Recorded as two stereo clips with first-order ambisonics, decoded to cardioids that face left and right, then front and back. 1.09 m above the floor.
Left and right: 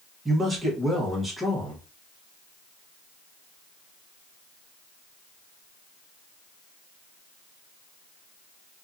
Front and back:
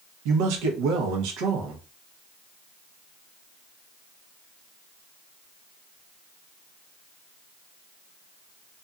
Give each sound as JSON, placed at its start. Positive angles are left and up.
{"t": 0.2, "sound": "a man speaking", "azimuth_deg": -170, "distance_m": 0.9}